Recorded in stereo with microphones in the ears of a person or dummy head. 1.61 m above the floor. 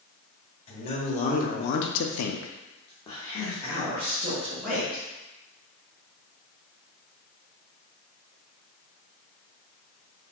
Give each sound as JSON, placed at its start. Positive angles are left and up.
{"t": 0.7, "sound": "a man speaking", "side_deg": 35, "distance_m": 1.3}